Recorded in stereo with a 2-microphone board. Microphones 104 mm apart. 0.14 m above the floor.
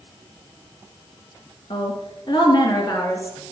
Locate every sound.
1.7 s a woman speaking: 60° left (ahead or behind), 3 m; by 3.4 s 25° left (ahead or behind), 2.5 m